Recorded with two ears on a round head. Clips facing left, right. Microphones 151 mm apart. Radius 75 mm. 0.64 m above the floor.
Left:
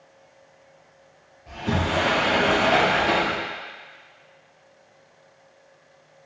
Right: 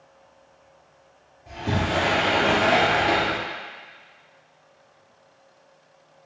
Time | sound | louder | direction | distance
1.5 | a sliding door | even | 10° right (ahead or behind) | 3 m